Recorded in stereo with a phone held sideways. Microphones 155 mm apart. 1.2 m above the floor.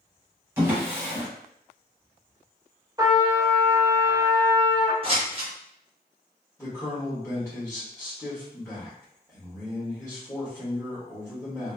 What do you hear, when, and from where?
0.6 s a drawer: 15° right (ahead or behind), 1.1 m
3.0 s a trumpet: 20° right (ahead or behind), 0.6 m
5.0 s scissors: 35° right (ahead or behind), 0.8 m
6.6 s a man speaking: 15° left (ahead or behind), 1.3 m